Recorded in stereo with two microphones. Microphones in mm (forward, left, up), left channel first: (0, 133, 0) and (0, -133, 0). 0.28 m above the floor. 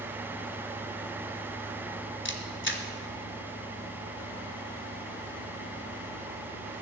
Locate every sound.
2.2 s a camera shutter: 45° left (ahead or behind), 1.4 m